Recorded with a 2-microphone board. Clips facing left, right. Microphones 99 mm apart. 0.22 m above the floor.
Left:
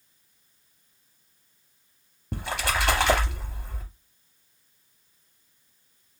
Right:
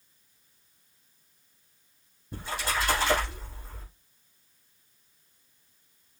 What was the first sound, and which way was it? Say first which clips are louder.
A splash: left 3 dB; 70° left (ahead or behind).